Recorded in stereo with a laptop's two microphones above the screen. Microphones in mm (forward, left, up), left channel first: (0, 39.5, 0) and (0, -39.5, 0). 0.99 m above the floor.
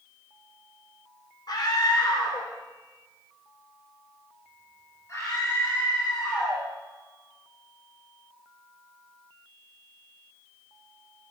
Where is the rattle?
I don't hear a rattle.